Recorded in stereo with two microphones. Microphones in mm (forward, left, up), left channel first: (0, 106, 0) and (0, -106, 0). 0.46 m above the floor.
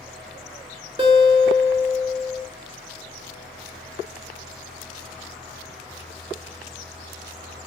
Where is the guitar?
25° right (ahead or behind), 1.1 m.